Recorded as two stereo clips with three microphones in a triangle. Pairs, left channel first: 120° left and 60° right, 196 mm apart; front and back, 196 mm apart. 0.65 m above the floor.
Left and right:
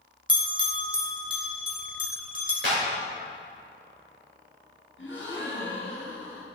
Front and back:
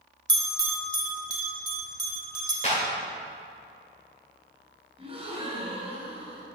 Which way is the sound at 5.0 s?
120° left.